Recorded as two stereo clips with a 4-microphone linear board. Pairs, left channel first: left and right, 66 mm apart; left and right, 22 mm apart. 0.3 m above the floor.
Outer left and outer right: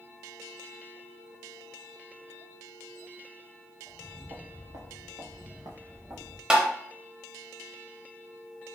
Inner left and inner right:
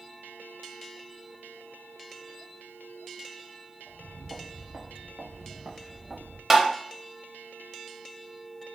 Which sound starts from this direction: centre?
Tapping, at 6.5 s.